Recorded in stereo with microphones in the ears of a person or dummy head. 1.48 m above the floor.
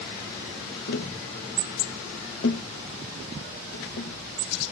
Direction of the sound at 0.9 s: 55° left (ahead or behind).